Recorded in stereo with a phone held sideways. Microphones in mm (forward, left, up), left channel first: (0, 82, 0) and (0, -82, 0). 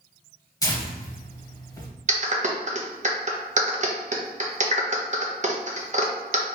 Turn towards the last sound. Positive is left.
turn(degrees=-45)  # may be behind; listen again after turning